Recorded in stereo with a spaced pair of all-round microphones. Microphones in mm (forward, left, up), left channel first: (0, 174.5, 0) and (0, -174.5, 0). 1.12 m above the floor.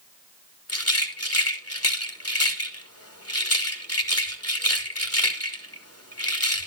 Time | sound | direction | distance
0.7 | a rattle | 45° left (ahead or behind) | 2 m